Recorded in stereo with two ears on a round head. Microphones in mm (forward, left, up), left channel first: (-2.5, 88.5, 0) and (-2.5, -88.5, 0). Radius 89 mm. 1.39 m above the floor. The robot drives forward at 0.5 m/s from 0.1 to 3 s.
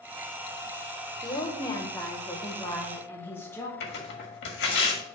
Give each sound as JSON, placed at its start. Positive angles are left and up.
{"t": 1.2, "sound": "a woman speaking", "side_deg": 25, "distance_m": 1.0}
{"t": 3.8, "sound": "tearing paper", "side_deg": 55, "distance_m": 1.6}